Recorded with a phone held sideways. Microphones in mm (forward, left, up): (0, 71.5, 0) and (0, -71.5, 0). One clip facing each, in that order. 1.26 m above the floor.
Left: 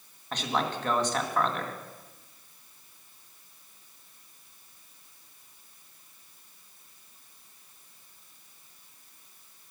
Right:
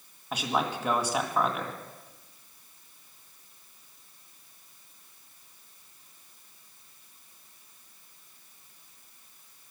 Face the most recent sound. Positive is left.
turn(degrees=-10)  # may be behind; listen again after turning